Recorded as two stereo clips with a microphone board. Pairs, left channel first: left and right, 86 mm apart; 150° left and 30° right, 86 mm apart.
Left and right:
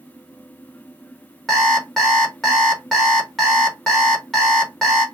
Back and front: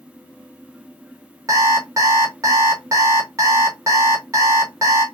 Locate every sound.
1.5 s an alarm clock: 5° left, 0.9 m